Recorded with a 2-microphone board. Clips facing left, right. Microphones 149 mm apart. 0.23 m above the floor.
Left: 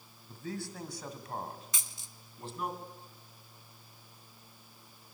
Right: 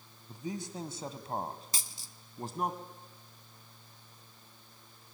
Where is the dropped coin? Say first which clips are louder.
Right 2 dB; 35° right (ahead or behind), 0.7 m.